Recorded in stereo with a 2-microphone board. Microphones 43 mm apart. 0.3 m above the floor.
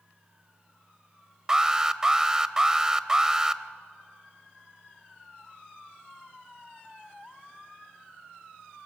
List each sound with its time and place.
1.5 s an alarm: 15° right (ahead or behind), 0.7 m